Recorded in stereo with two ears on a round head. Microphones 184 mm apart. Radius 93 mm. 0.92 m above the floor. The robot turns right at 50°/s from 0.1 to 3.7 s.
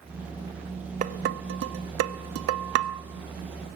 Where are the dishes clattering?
40° right (ahead or behind), 0.9 m; by 3.0 s 45° right (ahead or behind), 0.9 m.